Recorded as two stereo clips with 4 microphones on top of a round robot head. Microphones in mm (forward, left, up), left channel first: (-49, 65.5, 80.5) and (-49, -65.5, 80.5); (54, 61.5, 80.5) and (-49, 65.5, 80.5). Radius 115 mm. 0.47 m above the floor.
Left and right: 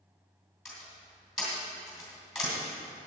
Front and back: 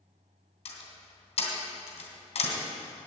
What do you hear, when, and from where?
0.7 s a door slam: straight ahead, 3 m